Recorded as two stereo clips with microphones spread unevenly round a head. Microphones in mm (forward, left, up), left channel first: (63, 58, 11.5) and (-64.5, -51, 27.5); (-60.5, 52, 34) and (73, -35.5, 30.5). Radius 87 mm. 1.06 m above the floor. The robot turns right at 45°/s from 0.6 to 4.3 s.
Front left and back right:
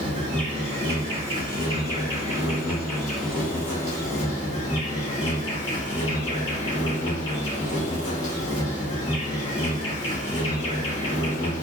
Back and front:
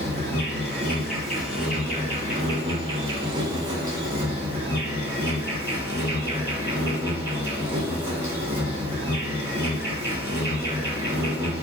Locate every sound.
0.0 s an insect: 150° right, 1.5 m; by 11.6 s 15° left, 1.5 m